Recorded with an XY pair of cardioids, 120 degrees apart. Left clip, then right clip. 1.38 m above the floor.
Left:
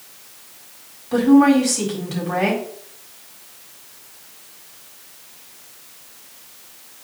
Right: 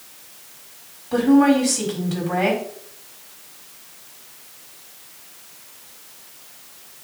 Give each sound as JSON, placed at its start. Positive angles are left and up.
{"t": 1.1, "sound": "a woman speaking", "azimuth_deg": 10, "distance_m": 4.5}